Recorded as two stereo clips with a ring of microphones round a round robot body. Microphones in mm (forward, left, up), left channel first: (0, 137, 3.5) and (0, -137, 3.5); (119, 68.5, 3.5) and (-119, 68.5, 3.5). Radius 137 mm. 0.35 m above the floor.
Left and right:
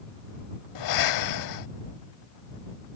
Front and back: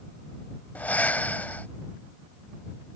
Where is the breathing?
85° left.